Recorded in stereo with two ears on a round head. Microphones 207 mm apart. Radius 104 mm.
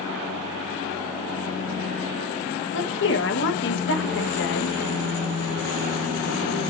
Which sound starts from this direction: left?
A woman speaking, at 2.7 s.